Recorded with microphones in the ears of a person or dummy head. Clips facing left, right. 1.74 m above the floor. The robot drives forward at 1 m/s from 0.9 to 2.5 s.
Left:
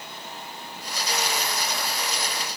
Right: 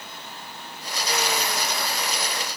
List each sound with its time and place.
Only background noise.